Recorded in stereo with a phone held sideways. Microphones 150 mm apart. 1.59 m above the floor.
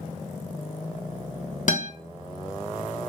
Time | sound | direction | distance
1.7 | a guitar | 65° left (ahead or behind) | 0.8 m